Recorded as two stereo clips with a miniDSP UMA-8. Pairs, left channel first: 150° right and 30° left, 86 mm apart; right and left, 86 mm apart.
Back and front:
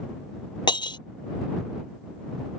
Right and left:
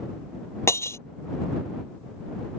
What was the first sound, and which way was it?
Breaking glass, 140° right.